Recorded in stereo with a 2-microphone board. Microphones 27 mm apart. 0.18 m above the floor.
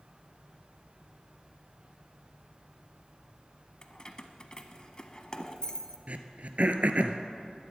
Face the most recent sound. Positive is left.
turn(degrees=-60)  # may be behind; listen again after turning